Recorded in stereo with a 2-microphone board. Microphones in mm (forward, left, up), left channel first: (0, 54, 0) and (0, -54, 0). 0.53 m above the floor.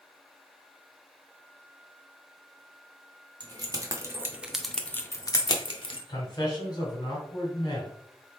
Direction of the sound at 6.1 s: 40° left (ahead or behind).